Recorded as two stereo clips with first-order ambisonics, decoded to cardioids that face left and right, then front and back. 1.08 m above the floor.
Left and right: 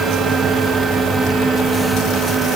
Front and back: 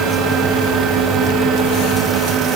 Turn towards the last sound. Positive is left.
No sound to turn to.